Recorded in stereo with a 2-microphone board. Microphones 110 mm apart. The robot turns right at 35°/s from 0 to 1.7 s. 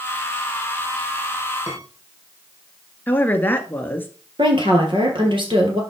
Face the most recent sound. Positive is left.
turn(degrees=-50)  # may be behind; listen again after turning